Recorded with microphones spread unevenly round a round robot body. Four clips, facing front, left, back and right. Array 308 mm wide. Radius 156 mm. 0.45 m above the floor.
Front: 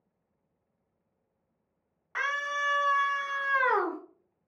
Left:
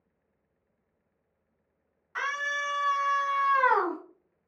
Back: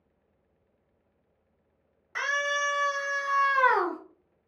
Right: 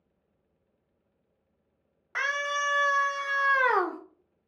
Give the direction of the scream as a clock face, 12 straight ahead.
3 o'clock.